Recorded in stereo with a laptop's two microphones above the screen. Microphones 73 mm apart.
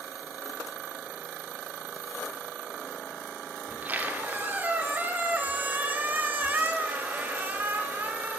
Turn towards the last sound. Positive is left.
turn(degrees=-25)  # may be behind; listen again after turning